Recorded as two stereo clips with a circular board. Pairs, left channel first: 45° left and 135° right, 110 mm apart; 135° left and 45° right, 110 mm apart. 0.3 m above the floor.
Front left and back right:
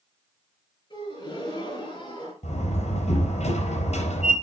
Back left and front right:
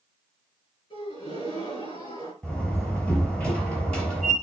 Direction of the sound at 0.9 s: 90° left.